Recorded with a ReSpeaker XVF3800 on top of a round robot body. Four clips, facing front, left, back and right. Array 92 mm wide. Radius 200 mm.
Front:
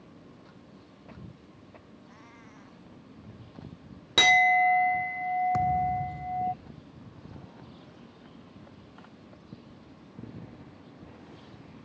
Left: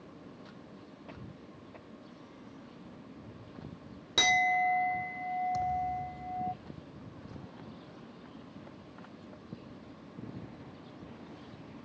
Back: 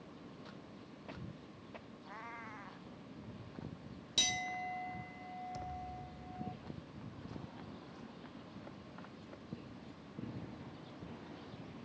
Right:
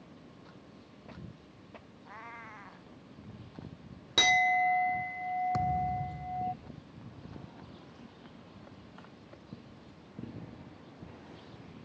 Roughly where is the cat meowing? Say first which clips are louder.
Right 4 dB, back 3 dB; behind right.